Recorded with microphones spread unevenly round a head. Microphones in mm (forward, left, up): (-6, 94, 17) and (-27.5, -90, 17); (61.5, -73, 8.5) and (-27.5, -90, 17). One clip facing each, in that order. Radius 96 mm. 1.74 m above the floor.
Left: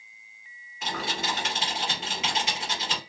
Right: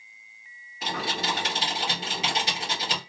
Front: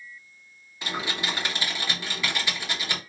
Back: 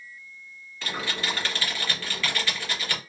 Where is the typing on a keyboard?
60° right, 1.2 m.